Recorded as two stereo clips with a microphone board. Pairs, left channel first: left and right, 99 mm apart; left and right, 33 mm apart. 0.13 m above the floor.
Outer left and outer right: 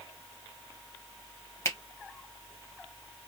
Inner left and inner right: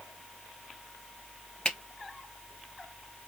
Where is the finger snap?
30° left (ahead or behind), 1.4 m.